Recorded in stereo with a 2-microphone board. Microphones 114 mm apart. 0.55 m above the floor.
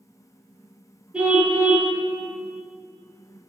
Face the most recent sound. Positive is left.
turn(degrees=-10)  # may be behind; listen again after turning